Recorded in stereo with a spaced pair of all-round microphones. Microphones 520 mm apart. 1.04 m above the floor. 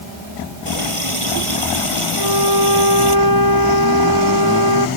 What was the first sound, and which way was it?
A running tap, 75° right (ahead or behind).